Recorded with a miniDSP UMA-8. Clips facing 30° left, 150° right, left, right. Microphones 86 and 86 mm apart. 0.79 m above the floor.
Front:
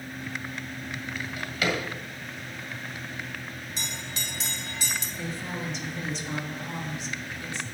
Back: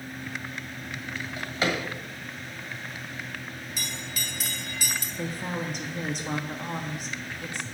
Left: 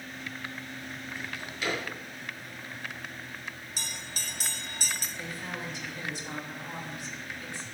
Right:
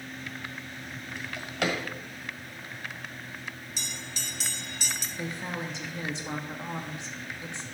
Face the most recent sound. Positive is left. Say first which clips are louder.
# back 5 dB, right 3 dB
turn(degrees=-150)